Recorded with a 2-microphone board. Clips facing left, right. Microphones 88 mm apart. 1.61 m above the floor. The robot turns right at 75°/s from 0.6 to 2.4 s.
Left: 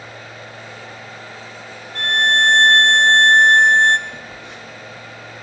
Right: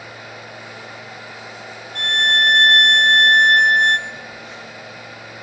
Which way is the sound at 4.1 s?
65° left (ahead or behind).